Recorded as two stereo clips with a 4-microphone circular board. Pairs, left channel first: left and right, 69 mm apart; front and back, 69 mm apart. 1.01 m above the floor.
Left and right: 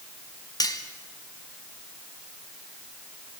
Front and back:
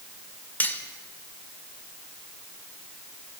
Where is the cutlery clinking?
65° left, 2 m.